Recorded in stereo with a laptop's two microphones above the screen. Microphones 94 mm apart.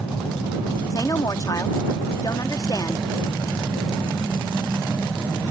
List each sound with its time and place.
0.9 s a woman speaking: 40° left (ahead or behind)